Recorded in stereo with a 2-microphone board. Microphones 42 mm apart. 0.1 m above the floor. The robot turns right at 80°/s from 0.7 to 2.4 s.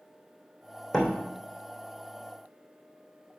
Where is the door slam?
15° left (ahead or behind), 3 m; by 1.1 s centre (ahead or behind), 3 m.